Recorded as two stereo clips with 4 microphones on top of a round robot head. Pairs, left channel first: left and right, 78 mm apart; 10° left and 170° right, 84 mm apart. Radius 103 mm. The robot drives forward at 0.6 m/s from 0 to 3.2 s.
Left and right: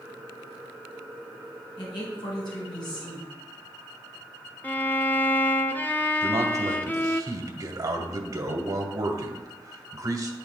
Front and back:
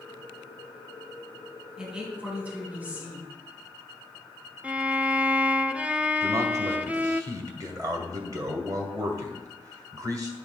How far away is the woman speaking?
About 3.5 m.